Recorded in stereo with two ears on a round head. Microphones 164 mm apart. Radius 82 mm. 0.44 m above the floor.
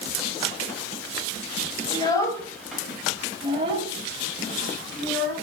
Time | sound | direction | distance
1.9 | a child speaking | 25° left (ahead or behind) | 2 m